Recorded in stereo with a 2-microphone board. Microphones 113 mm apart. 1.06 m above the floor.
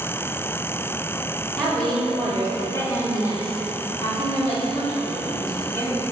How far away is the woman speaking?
About 2.5 m.